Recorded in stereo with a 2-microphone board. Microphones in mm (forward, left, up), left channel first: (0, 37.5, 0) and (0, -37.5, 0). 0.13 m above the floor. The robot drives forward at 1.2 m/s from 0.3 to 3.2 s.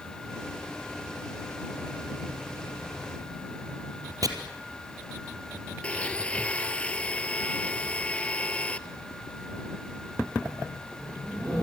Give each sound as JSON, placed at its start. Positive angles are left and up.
{"t": 4.2, "sound": "chopping", "side_deg": -55, "distance_m": 3.0}
{"t": 5.8, "sound": "a blender", "side_deg": 15, "distance_m": 1.0}